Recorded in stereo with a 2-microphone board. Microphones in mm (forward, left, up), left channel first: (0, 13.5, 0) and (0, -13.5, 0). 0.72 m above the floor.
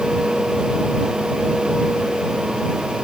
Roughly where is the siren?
No siren in this recording.